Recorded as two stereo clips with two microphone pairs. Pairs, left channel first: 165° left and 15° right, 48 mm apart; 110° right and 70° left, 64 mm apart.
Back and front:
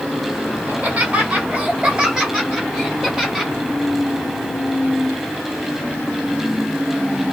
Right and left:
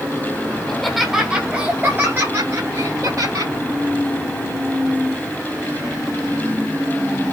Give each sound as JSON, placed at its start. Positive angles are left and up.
{"t": 0.7, "sound": "laughter", "azimuth_deg": -35, "distance_m": 1.6}